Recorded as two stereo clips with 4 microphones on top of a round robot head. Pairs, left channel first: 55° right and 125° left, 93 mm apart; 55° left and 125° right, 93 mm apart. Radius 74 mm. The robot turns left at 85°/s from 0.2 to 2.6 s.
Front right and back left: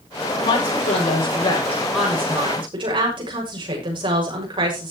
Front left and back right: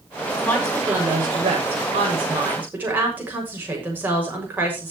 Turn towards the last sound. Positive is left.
turn(degrees=160)